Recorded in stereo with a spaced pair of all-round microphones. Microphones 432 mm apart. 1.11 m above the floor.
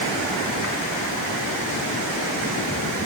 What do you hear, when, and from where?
Only background noise.